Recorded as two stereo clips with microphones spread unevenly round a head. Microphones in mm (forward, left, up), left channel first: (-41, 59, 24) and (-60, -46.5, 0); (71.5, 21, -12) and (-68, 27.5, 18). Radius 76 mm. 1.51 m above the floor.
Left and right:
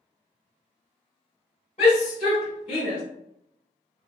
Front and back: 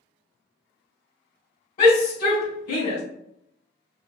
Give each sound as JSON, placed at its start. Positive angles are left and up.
{"t": 1.8, "sound": "a shout", "azimuth_deg": 25, "distance_m": 1.4}